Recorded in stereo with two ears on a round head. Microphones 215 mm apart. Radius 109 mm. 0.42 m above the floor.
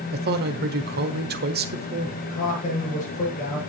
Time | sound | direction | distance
0.1 | a man speaking | 40° right (ahead or behind) | 1.2 m
2.2 | a man speaking | 30° left (ahead or behind) | 7 m